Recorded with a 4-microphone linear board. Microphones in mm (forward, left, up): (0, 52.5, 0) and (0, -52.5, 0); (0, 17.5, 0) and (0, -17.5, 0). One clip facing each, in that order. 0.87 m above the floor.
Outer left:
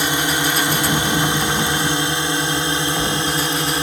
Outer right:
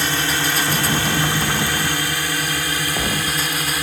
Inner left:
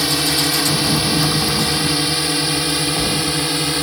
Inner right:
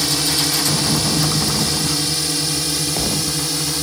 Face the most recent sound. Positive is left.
turn(degrees=30)  # may be behind; listen again after turning